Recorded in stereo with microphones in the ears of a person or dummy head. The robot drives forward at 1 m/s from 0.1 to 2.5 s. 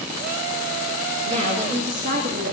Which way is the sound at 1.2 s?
35° right (ahead or behind).